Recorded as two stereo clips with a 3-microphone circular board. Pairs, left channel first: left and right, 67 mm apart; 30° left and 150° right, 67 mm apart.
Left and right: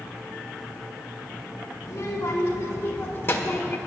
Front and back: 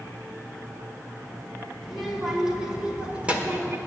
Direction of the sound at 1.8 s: 120° left.